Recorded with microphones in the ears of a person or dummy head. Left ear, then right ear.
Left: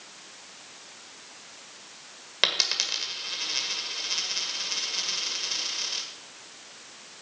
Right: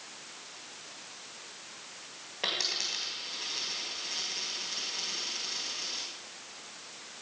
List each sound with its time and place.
2.4 s a dropped coin: 60° left (ahead or behind), 1.7 m